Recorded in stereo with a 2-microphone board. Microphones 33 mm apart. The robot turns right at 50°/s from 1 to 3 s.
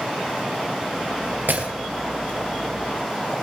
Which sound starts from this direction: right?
Breaking glass, at 1.5 s.